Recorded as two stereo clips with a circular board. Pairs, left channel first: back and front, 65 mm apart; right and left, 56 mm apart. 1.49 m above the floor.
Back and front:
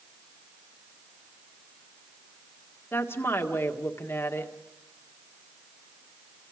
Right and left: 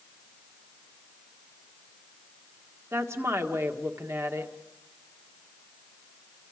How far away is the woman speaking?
About 1.7 m.